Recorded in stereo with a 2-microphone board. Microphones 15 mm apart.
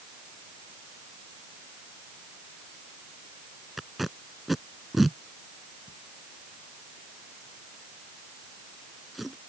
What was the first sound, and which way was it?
Tape being pulled, 5° right (ahead or behind).